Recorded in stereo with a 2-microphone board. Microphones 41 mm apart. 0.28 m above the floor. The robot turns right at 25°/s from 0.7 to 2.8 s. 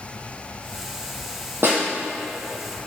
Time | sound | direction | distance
1.6 | a snare drum | 70° right (ahead or behind) | 2.5 m